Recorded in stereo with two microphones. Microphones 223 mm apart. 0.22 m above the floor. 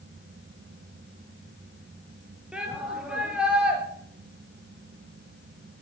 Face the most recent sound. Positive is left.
turn(degrees=-5)  # may be behind; listen again after turning